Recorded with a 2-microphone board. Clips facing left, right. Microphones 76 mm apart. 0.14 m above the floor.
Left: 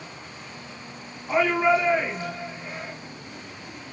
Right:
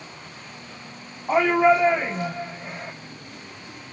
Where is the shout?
50° right (ahead or behind), 4 m.